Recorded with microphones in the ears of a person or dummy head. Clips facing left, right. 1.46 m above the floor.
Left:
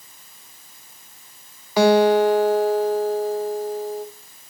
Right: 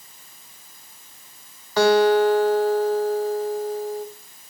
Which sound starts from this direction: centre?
A guitar, at 1.8 s.